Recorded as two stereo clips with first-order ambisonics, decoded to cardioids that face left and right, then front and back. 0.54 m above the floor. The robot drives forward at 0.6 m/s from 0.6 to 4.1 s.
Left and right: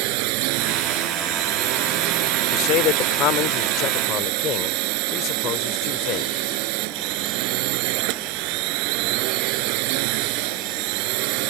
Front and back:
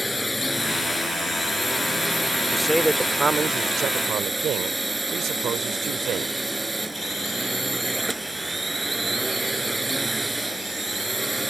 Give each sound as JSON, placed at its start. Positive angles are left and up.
{"t": 0.0, "sound": "a drone", "azimuth_deg": -90}
{"t": 2.5, "sound": "a man speaking", "azimuth_deg": 85}